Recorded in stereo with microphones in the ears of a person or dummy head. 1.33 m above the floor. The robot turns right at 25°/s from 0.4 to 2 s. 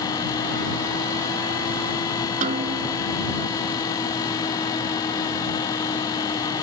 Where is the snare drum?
40° right (ahead or behind).